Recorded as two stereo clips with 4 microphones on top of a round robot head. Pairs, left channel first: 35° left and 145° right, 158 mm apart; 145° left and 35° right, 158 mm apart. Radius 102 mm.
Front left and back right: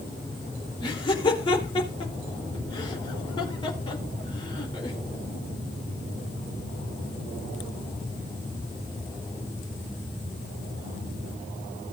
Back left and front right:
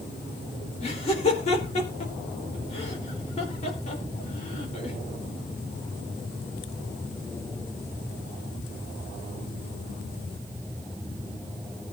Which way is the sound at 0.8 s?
95° left.